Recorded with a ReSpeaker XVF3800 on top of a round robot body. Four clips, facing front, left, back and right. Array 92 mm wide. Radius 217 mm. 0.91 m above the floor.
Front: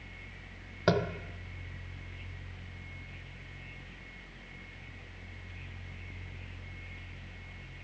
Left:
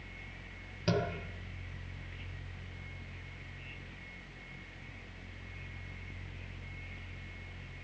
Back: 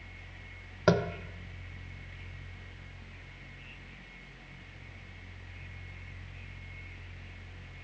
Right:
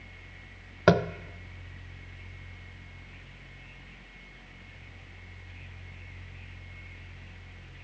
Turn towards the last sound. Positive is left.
turn(degrees=-100)